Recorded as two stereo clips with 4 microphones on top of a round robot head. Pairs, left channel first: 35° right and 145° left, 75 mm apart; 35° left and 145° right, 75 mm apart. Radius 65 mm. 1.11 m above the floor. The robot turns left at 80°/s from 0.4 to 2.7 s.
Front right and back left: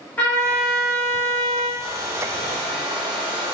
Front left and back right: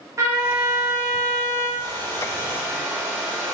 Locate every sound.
0.2 s a trumpet: 100° right, 1.0 m; by 1.7 s 155° left, 1.0 m
1.8 s a hair dryer: 155° right, 1.5 m; by 3.5 s 130° left, 1.5 m